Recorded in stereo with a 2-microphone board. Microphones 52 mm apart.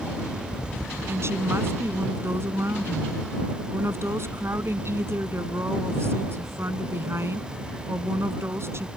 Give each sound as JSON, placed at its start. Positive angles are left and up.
{"t": 1.1, "sound": "a woman speaking", "side_deg": -55}